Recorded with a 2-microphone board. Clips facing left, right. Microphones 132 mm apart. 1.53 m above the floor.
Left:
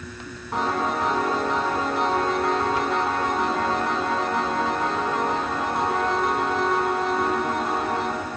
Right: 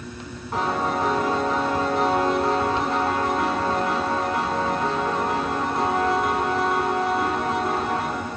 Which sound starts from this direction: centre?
A piano, at 0.5 s.